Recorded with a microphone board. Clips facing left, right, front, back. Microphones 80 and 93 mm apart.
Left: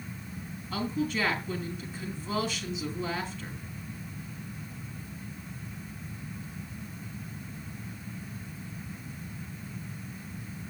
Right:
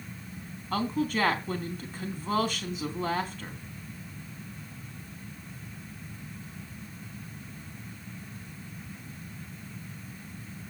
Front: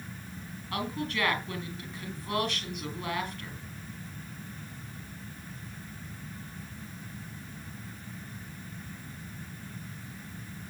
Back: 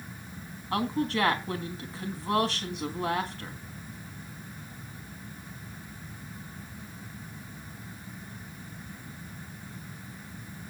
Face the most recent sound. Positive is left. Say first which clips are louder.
# right 2 dB, back 5 dB
turn(degrees=-125)